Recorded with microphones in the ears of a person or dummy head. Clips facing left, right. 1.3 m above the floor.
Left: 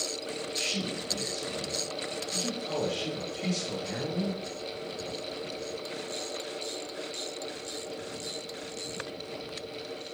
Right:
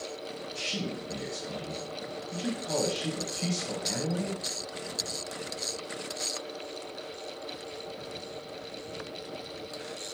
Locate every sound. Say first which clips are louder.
0.6 s a man speaking: left 1 dB; 55° right (ahead or behind), 1.9 m